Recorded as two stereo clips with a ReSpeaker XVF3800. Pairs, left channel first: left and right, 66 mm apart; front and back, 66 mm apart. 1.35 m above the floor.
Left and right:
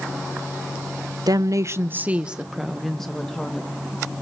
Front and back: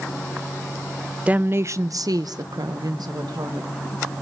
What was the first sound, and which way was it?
A woman speaking, 110° right.